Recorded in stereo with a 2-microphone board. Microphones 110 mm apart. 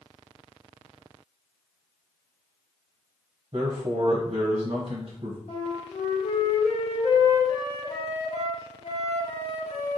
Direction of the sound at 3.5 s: 65° right (ahead or behind).